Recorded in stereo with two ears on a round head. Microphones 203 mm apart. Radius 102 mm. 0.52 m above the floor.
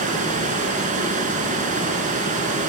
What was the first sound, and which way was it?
Running water, 35° right (ahead or behind).